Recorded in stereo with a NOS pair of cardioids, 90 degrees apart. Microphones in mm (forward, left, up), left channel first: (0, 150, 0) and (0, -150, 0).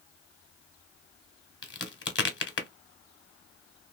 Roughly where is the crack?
Ahead left.